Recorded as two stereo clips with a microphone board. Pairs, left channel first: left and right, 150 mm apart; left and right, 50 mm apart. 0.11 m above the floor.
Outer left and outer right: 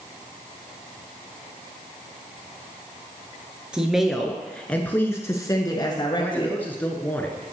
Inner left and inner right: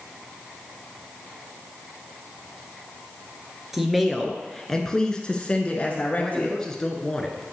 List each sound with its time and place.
3.7 s a woman speaking: 5° right (ahead or behind), 1.5 m; by 6.6 s 35° left (ahead or behind), 1.5 m
6.2 s a man speaking: 10° left (ahead or behind), 1.5 m